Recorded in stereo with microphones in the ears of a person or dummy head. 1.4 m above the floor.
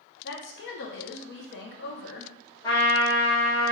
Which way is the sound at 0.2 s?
60° left (ahead or behind).